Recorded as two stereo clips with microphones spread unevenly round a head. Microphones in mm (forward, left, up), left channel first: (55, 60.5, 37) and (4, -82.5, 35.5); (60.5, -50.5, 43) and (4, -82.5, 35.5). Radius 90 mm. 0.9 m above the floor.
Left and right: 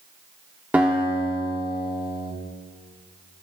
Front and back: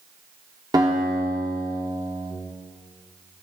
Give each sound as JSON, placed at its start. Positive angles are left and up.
{"t": 0.7, "sound": "a guitar", "azimuth_deg": 170, "distance_m": 2.0}